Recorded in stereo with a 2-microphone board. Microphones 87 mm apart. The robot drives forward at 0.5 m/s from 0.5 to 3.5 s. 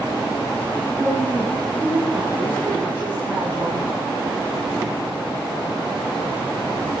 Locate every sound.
1.0 s a woman speaking: 25° left (ahead or behind), 10 m; by 4.1 s 20° left (ahead or behind), 11 m